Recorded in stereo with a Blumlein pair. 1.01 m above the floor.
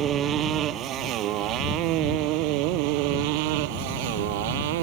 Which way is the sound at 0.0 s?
30° right.